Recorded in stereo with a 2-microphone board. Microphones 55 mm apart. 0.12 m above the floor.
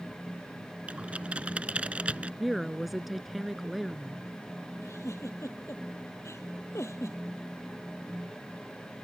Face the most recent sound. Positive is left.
turn(degrees=65)  # may be behind; listen again after turning